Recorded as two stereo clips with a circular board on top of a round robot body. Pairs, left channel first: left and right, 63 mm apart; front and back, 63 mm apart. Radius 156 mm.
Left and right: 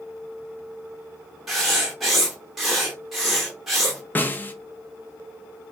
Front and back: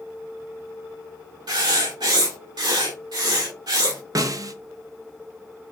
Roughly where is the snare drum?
Behind left.